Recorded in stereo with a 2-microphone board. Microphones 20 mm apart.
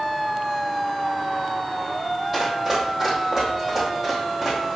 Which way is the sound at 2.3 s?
15° right (ahead or behind).